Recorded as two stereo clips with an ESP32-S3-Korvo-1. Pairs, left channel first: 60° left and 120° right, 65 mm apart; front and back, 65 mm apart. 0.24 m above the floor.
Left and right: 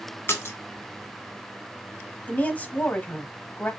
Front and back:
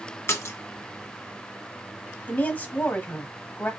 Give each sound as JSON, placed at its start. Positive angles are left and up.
{"t": 0.3, "sound": "a splash", "azimuth_deg": 25, "distance_m": 1.4}
{"t": 2.3, "sound": "a woman speaking", "azimuth_deg": 30, "distance_m": 1.1}